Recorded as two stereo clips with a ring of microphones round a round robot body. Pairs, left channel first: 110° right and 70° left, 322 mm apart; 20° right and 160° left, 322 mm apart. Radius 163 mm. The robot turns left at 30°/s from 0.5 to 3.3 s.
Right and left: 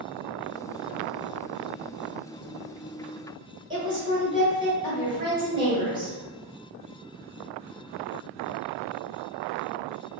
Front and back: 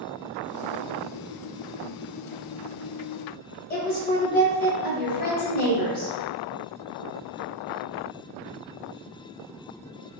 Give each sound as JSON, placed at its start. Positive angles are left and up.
{"t": 3.7, "sound": "a woman speaking", "azimuth_deg": 5, "distance_m": 1.3}